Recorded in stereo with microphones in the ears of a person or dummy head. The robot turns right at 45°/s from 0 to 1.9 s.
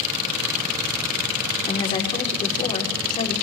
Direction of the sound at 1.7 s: 20° left (ahead or behind).